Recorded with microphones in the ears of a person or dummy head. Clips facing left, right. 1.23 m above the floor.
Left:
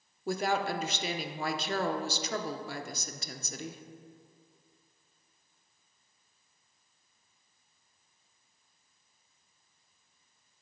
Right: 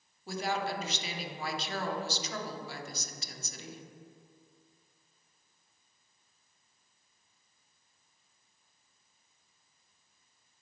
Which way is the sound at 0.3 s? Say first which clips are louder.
Left 3 dB; 50° left (ahead or behind).